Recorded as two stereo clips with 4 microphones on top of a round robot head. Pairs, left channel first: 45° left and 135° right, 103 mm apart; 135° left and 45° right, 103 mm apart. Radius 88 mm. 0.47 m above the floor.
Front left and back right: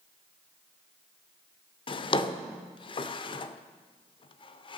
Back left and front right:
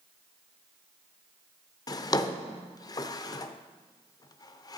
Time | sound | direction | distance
1.9 | a drawer | 80° left | 0.5 m